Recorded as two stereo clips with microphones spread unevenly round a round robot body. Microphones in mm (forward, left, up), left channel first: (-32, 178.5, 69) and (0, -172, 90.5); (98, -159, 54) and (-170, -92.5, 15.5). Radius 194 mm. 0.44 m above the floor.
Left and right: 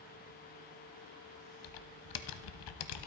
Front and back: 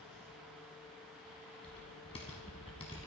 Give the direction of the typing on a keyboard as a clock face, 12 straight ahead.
10 o'clock.